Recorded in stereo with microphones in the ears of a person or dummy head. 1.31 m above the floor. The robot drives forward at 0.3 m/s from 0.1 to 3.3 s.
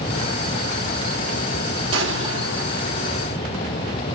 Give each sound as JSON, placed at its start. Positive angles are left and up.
{"t": 1.9, "sound": "an explosion", "side_deg": -85, "distance_m": 3.0}